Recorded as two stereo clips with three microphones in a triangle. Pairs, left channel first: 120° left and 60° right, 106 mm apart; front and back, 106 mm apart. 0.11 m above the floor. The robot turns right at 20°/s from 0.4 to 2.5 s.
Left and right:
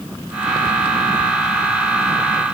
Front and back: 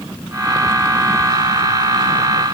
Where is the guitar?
No guitar in this recording.